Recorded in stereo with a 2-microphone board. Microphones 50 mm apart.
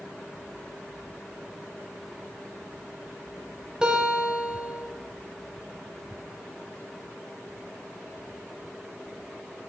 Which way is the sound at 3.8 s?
20° right (ahead or behind).